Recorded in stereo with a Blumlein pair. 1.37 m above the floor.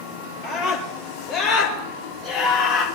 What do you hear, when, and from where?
0.4 s a scream: 20° left, 7.5 m; by 2.9 s 25° left, 6.5 m